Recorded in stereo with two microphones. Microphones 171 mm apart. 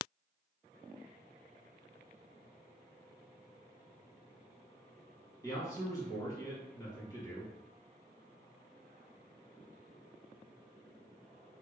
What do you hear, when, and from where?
5.4 s a man speaking: 20° left (ahead or behind), 1.3 m